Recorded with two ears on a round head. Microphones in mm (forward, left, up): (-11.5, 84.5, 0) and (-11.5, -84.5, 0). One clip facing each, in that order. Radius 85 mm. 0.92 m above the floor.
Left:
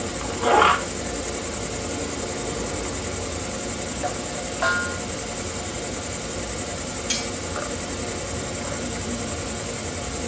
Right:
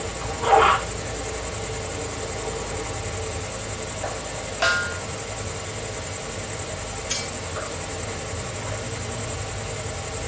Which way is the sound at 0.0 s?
60° left (ahead or behind).